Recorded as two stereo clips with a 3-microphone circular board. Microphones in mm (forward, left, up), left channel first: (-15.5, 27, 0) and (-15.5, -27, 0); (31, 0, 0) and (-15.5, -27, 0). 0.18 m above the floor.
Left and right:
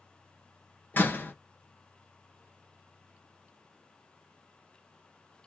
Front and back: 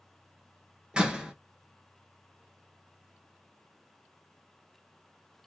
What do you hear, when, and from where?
0.9 s a door slam: 140° left, 1.7 m